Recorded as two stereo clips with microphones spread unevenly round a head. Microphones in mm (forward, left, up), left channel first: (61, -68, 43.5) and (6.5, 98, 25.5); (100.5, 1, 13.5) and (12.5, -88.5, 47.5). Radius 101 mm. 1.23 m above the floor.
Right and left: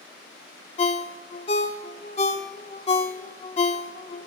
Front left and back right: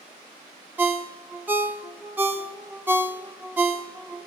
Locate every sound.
0.8 s a ringtone: 95° right, 0.9 m